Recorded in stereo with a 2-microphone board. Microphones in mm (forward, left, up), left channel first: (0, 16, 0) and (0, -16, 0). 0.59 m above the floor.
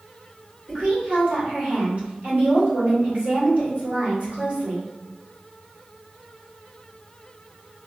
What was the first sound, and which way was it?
A woman speaking, 45° right (ahead or behind).